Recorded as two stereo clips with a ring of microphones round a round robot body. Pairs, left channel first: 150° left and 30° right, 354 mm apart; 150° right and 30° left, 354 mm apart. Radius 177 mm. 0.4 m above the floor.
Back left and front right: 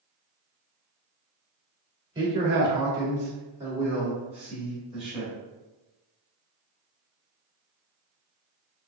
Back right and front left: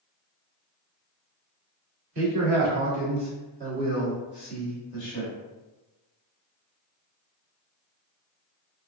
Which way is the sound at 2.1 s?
45° left.